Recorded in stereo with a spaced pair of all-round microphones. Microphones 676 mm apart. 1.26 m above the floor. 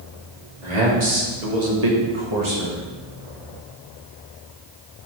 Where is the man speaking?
75° right (ahead or behind), 2.5 m; by 2.8 s 10° right (ahead or behind), 1.4 m.